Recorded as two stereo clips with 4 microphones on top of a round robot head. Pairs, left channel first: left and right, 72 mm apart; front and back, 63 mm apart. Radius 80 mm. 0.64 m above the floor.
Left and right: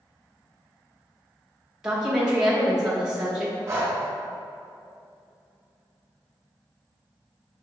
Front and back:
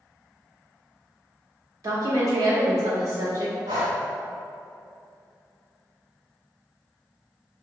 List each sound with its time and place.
1.8 s a woman speaking: 170° right, 1.2 m
3.7 s breathing: 145° right, 1.0 m